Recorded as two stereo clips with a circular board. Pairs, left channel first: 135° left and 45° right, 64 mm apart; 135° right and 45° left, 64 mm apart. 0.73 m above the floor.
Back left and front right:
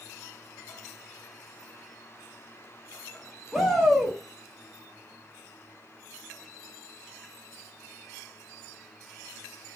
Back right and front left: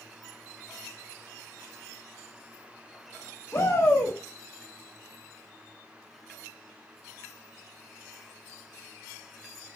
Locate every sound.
3.5 s a shout: 135° right, 0.5 m